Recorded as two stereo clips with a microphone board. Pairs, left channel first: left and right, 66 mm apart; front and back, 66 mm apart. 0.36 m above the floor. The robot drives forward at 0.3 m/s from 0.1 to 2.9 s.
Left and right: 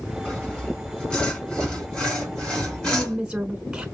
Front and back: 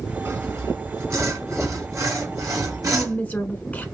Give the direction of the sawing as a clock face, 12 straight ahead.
7 o'clock.